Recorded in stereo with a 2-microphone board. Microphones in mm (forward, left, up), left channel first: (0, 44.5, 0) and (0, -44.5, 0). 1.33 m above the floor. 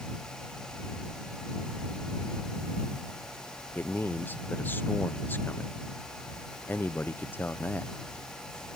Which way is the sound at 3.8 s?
20° left (ahead or behind).